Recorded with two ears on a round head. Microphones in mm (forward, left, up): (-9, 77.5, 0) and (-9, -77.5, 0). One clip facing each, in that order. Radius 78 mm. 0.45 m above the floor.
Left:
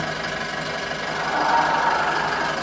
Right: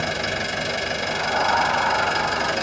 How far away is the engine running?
About 1.1 m.